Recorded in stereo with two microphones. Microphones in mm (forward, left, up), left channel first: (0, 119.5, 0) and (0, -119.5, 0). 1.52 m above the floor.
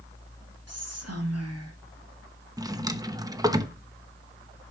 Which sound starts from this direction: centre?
A drawer, at 2.6 s.